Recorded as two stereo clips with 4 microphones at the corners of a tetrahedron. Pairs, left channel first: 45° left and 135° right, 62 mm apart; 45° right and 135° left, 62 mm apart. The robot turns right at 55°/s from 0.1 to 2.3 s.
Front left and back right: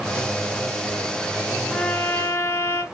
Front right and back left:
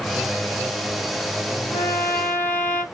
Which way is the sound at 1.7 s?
30° right.